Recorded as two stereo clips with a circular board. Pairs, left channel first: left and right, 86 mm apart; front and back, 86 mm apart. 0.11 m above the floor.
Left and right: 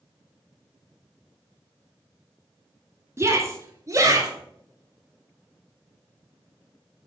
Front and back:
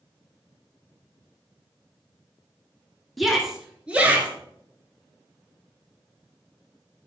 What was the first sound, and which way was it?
A shout, 85° right.